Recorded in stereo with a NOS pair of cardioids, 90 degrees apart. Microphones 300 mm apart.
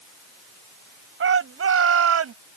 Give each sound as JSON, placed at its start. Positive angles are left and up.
{"t": 1.2, "sound": "a shout", "azimuth_deg": -45}